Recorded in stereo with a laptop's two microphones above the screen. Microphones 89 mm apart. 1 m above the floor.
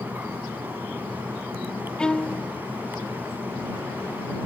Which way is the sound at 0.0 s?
20° right (ahead or behind).